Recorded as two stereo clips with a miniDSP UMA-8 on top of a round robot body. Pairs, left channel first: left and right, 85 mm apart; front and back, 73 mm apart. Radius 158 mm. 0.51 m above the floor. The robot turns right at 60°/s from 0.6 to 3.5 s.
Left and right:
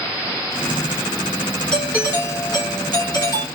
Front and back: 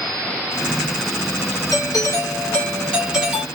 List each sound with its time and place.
1.7 s a doorbell: 10° left, 3 m; by 3.5 s 115° left, 3 m